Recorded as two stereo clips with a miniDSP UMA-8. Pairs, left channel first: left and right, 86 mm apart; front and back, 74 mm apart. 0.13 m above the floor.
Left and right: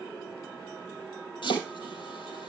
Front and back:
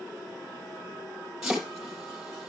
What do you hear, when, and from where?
1.4 s chopping: 95° left, 4.5 m